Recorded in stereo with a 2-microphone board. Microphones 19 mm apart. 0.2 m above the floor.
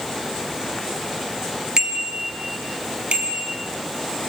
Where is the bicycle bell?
40° right (ahead or behind), 3 m; by 3.5 s 70° right (ahead or behind), 4 m.